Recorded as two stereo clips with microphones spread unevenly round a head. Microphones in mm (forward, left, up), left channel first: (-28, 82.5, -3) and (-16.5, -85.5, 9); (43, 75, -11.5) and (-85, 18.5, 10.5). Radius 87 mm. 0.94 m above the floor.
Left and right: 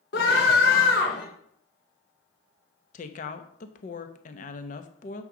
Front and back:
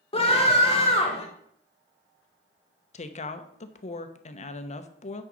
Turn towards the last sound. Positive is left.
turn(degrees=50)